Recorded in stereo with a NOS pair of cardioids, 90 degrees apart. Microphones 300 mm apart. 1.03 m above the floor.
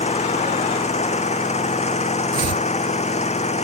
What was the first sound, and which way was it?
An engine running, 20° left.